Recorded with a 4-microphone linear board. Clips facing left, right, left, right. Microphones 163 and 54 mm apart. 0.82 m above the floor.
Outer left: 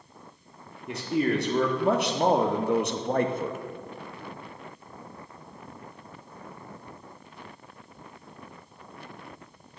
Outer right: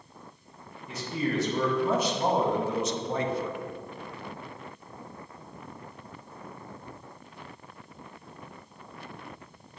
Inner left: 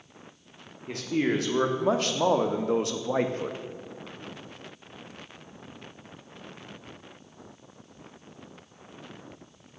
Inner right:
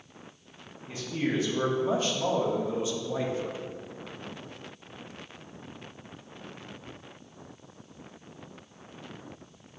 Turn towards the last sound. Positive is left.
turn(degrees=40)  # may be behind; listen again after turning